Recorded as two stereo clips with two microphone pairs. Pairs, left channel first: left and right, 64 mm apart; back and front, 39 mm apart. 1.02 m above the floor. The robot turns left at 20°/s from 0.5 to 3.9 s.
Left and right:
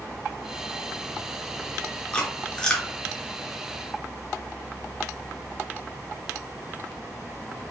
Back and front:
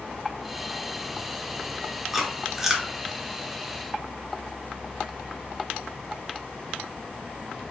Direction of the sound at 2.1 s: 60° left.